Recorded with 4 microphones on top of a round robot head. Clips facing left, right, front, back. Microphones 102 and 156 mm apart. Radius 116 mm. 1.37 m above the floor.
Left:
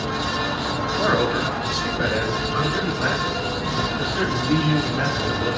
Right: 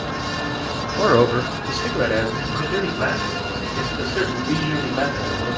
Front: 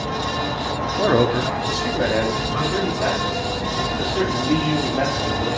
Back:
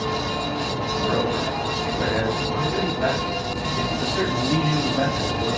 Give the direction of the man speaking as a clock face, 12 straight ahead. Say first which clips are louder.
Right 6 dB, front 7 dB; 1 o'clock.